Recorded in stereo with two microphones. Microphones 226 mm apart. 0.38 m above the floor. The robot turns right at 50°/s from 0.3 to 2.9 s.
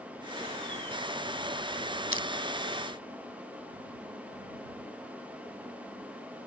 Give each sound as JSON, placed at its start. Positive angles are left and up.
{"t": 2.1, "sound": "crushing", "side_deg": -65}